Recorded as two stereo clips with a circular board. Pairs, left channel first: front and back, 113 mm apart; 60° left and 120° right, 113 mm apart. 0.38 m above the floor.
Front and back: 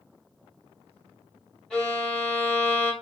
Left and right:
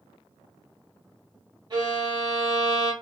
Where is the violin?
80° right, 1.5 m.